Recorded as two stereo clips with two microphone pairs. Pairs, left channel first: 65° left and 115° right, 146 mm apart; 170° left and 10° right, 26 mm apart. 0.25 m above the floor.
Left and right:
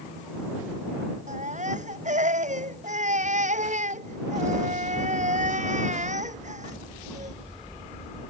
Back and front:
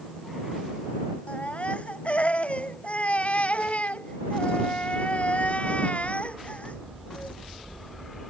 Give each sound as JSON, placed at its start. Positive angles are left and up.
{"t": 1.3, "sound": "a baby crying", "azimuth_deg": -150}